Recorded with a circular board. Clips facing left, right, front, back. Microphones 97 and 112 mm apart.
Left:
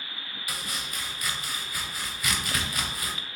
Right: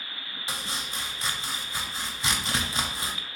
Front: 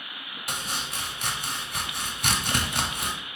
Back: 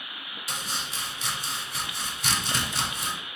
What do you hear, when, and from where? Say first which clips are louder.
0.5 s chopping: right 2 dB, front 2 dB; 25° right, 0.6 m